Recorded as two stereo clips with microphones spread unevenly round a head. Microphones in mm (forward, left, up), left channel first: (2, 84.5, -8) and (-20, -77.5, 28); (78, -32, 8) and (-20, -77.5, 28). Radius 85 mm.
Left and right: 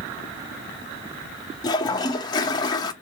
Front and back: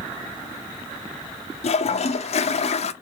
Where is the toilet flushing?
20° left, 0.5 m.